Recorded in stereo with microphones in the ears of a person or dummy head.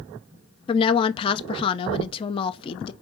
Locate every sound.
0.7 s a woman speaking: 30° left (ahead or behind), 0.5 m